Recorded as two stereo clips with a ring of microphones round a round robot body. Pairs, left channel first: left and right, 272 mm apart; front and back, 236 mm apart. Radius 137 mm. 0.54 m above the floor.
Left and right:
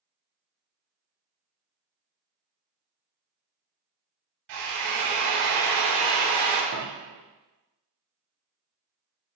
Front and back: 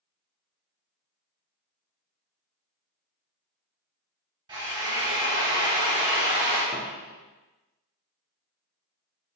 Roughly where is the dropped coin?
Behind right.